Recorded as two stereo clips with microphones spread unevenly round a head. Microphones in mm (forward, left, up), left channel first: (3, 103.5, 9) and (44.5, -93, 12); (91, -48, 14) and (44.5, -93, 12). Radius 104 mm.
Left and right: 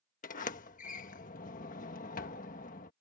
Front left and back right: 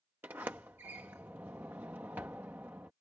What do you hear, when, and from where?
0.2 s a sliding door: 150° left